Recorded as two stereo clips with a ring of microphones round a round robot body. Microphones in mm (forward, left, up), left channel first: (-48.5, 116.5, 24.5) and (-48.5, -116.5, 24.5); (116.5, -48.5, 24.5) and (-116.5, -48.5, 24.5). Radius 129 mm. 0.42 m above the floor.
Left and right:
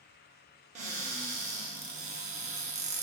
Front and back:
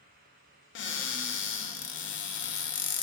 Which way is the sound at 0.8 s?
30° right.